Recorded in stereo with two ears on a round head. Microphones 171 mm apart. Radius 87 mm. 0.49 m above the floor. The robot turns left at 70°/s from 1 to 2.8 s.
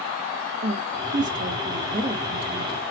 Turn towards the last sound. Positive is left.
turn(degrees=165)